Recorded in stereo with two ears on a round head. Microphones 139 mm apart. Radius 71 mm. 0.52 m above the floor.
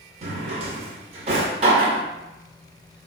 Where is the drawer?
40° right (ahead or behind), 0.5 m.